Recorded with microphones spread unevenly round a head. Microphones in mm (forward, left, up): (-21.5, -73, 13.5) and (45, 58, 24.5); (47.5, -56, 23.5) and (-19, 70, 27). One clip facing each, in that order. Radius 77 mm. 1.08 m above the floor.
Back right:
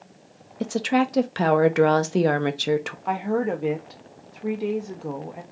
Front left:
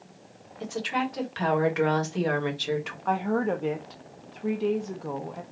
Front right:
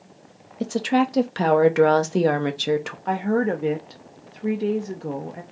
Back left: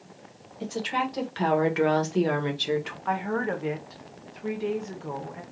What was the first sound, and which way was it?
A woman speaking, 95° right.